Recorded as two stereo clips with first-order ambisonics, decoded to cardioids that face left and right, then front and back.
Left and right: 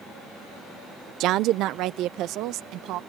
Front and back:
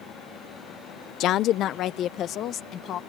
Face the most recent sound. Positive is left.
turn(degrees=-50)